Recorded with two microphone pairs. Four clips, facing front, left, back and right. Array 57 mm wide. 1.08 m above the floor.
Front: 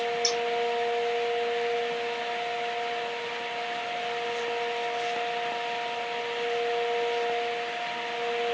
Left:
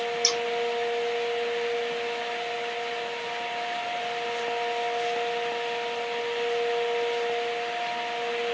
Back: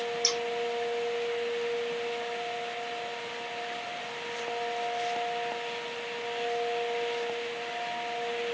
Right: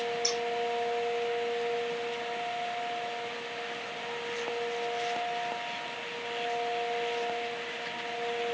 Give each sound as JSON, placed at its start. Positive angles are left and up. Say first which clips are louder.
{"t": 0.2, "sound": "scissors", "louder": "left 4 dB, front 3 dB", "azimuth_deg": 115, "distance_m": 1.5}